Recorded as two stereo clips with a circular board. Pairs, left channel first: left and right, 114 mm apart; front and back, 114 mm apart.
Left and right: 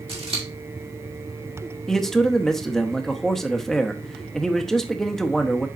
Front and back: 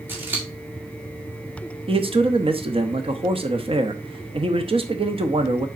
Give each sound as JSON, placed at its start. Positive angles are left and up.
{"t": 0.1, "sound": "scissors", "azimuth_deg": -110, "distance_m": 2.5}
{"t": 1.9, "sound": "a man speaking", "azimuth_deg": 175, "distance_m": 0.9}